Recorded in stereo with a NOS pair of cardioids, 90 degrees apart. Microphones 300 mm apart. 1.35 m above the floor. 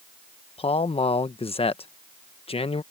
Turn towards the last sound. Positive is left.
turn(degrees=20)